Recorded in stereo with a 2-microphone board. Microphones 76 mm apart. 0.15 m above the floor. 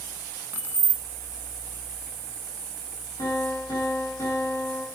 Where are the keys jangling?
25° right (ahead or behind), 1.1 m.